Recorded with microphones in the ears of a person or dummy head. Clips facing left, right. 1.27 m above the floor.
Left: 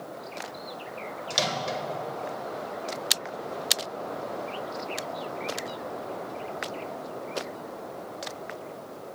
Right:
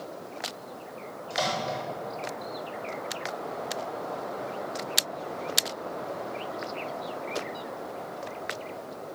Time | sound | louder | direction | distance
1.3 | a microwave | right 1 dB | 35° left (ahead or behind) | 1.0 m